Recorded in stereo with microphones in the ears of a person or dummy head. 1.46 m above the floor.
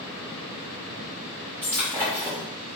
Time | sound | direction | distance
1.6 | breaking glass | 10° right (ahead or behind) | 1.2 m